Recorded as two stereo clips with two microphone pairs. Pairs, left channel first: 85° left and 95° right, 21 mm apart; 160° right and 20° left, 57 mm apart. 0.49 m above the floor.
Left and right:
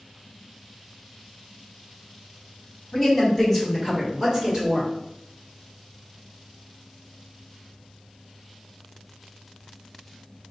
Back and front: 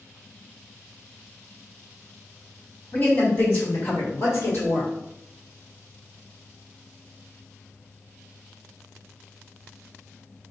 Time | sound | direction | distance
2.9 | a woman speaking | 165° left | 1.5 m